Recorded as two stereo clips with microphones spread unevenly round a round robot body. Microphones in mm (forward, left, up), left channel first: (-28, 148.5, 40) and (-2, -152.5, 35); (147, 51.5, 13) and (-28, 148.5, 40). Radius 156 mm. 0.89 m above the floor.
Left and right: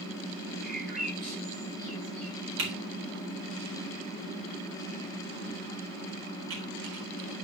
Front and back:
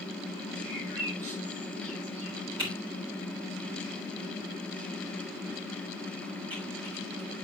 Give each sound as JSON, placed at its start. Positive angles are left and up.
{"t": 0.6, "sound": "a bird", "azimuth_deg": -175, "distance_m": 6.5}
{"t": 2.6, "sound": "typing on a keyboard", "azimuth_deg": -135, "distance_m": 4.0}